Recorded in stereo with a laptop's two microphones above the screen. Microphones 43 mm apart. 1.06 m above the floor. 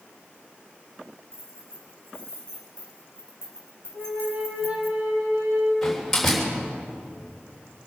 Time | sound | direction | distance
1.3 | keys jangling | 70° right (ahead or behind) | 6.5 m
3.9 | a flute | 45° right (ahead or behind) | 3 m
5.8 | a door slam | 5° left (ahead or behind) | 3.5 m